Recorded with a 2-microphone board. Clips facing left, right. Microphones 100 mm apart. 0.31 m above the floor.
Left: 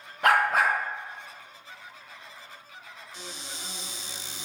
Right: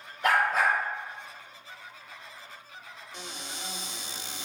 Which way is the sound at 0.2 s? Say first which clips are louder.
Left 2 dB; 75° left (ahead or behind).